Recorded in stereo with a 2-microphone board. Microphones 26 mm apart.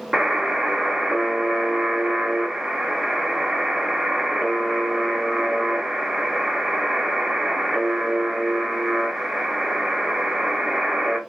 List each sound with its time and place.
0.1 s a buzzer: 25° right (ahead or behind), 0.7 m